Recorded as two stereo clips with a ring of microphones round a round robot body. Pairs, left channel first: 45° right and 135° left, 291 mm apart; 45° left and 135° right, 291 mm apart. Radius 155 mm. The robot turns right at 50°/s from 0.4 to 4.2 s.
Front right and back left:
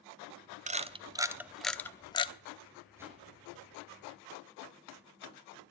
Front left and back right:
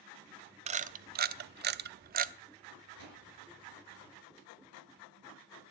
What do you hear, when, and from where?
0.7 s a camera shutter: 175° left, 0.7 m; by 2.3 s 100° right, 0.7 m
3.0 s a whoosh: 145° right, 4 m; by 3.2 s 130° right, 4 m